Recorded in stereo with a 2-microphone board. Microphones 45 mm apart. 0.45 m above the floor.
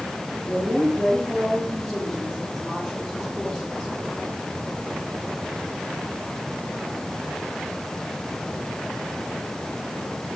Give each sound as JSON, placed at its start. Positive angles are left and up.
{"t": 0.4, "sound": "a woman speaking", "side_deg": -10, "distance_m": 9.5}